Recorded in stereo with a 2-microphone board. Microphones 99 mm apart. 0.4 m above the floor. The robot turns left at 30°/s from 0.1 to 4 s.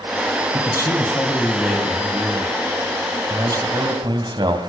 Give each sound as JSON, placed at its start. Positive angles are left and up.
{"t": 0.5, "sound": "a man speaking", "azimuth_deg": 45, "distance_m": 3.0}